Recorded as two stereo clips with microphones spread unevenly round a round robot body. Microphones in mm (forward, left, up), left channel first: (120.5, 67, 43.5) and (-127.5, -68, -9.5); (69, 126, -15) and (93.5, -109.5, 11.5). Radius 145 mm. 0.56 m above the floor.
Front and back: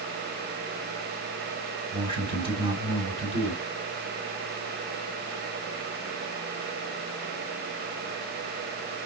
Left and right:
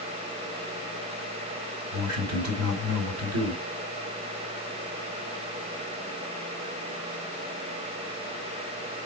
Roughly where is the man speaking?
Right.